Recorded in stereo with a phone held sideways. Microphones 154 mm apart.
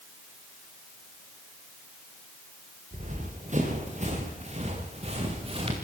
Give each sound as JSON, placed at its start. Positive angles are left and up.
{"t": 2.9, "sound": "running footsteps", "side_deg": -55, "distance_m": 6.5}